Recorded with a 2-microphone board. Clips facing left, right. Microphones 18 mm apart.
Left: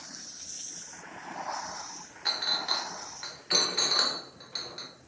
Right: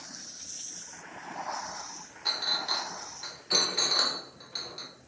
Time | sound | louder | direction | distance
2.2 | a clink | even | 45° left (ahead or behind) | 0.5 m